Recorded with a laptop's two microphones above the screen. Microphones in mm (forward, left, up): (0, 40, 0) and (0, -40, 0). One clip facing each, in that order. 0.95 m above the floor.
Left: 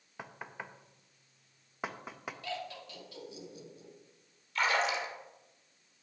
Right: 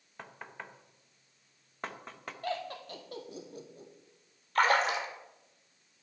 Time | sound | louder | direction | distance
0.2 | knocking | left 1 dB | 10° left (ahead or behind) | 0.6 m
2.4 | laughter | right 6 dB | 45° right (ahead or behind) | 1.5 m
4.5 | a splash | right 4 dB | 50° right (ahead or behind) | 1.5 m